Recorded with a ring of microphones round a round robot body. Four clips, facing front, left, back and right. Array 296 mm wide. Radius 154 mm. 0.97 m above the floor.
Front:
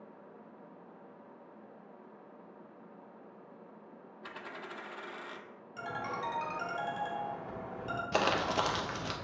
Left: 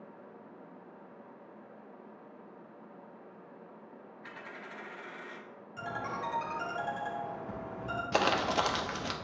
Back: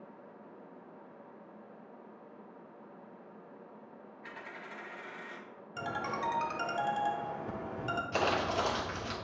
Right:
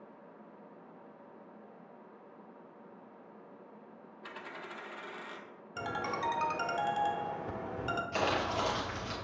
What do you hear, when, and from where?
4.2 s a dropped coin: 30° right, 0.7 m
5.8 s a ringtone: 120° right, 1.1 m
8.1 s crumpling: 60° left, 1.2 m